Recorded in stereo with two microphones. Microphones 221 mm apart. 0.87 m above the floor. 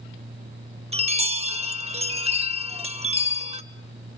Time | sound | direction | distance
0.9 | a chime | 30° right (ahead or behind) | 0.7 m